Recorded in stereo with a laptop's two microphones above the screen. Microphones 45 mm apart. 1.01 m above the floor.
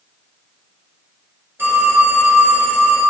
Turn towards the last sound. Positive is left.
turn(degrees=-50)  # may be behind; listen again after turning